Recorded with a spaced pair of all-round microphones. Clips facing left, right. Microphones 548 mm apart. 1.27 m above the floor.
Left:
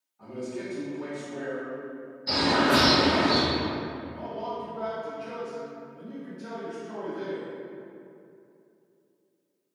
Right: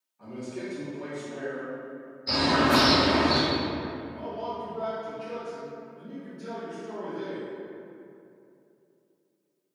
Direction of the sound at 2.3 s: 55° left (ahead or behind).